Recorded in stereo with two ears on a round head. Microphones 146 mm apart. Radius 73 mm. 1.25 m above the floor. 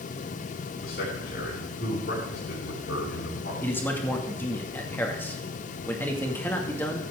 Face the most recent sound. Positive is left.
turn(degrees=10)  # may be behind; listen again after turning